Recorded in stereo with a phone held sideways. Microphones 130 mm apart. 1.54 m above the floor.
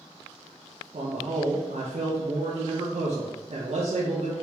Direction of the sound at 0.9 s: 60° right (ahead or behind).